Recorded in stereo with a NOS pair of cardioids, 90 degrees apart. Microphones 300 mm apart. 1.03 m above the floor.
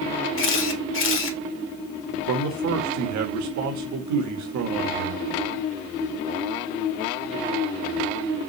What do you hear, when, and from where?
0.4 s a camera shutter: 45° left, 1.6 m
2.3 s a man speaking: 70° right, 1.2 m